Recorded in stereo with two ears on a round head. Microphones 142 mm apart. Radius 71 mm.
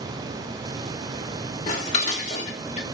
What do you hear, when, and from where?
1.7 s dishes clattering: 45° left (ahead or behind), 1.0 m